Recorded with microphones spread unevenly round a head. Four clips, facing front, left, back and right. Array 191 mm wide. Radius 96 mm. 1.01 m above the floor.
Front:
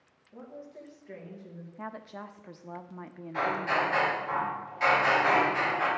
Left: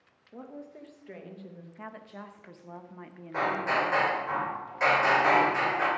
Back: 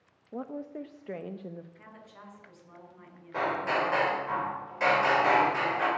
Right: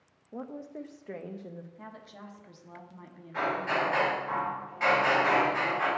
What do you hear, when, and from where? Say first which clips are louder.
0.3 s a woman speaking: right 4 dB, back 8 dB; 160° right, 0.7 m
1.8 s a woman speaking: left 3 dB, front 9 dB; 25° left, 0.9 m
3.3 s hammering: left 2 dB, even; 140° left, 4 m